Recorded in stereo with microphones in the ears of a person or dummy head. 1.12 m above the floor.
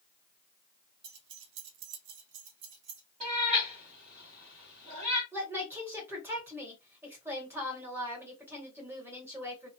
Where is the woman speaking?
10° right (ahead or behind), 1.1 m.